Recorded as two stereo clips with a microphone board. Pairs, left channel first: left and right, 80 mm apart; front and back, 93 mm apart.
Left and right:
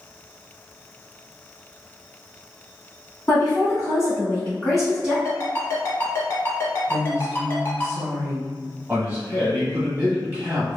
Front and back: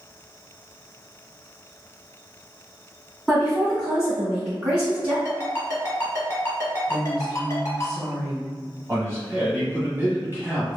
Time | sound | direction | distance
3.3 | a woman speaking | 80° left | 1.9 m
5.2 | a ringtone | 40° left | 1.0 m
6.9 | a woman speaking | 75° left | 1.8 m
8.9 | a man speaking | 140° right | 1.3 m